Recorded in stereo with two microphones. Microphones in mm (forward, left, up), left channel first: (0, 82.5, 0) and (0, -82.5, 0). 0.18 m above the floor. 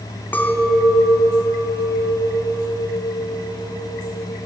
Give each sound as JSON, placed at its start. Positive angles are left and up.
{"t": 0.3, "sound": "a clink", "side_deg": 10, "distance_m": 0.6}